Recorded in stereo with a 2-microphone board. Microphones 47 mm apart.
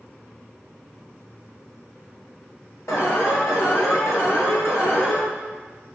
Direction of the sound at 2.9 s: 80° left.